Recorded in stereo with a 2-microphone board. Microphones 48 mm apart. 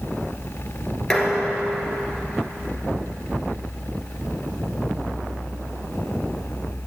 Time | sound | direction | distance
1.1 | dishes clattering | 10° left (ahead or behind) | 1.8 m